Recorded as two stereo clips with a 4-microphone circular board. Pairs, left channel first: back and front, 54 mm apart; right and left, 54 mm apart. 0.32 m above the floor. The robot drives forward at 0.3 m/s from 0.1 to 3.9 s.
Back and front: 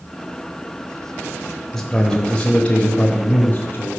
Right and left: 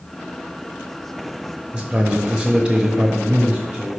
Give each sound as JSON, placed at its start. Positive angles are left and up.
{"t": 1.7, "sound": "a man speaking", "azimuth_deg": 110, "distance_m": 0.8}